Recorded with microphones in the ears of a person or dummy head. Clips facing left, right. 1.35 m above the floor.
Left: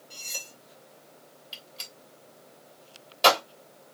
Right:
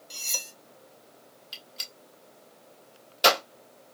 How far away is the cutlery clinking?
About 1.1 m.